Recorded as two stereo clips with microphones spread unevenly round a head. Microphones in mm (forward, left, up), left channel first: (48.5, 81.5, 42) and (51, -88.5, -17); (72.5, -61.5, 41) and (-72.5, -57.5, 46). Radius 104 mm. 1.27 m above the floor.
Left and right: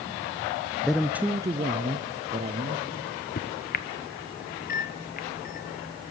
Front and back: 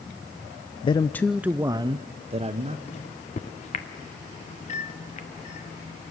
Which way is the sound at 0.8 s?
20° right.